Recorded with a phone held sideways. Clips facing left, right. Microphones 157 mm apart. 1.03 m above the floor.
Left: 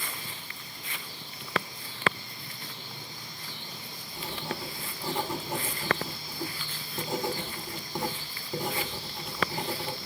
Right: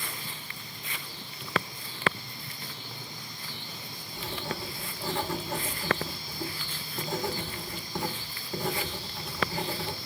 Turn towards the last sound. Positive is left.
turn(degrees=20)  # may be behind; listen again after turning